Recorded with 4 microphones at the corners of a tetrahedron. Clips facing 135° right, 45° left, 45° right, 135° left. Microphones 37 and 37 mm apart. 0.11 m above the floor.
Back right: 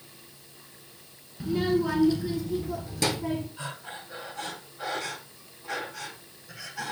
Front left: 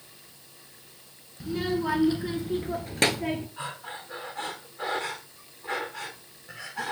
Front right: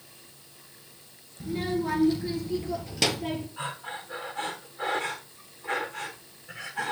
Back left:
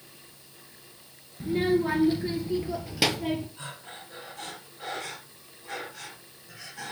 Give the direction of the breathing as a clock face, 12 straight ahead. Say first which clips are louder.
Front left 2 dB, front right 7 dB; 12 o'clock.